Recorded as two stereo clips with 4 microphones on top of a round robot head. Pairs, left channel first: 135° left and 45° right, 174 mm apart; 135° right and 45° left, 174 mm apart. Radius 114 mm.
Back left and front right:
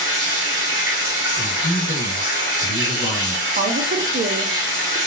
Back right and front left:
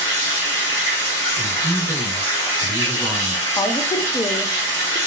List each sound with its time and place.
0.0 s running water: 65° right, 2 m
1.4 s a man speaking: 120° left, 1.1 m
3.6 s a woman speaking: 70° right, 0.6 m